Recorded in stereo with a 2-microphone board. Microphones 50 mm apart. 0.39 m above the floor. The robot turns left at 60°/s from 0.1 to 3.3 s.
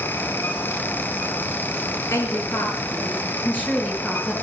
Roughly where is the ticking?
No ticking in this recording.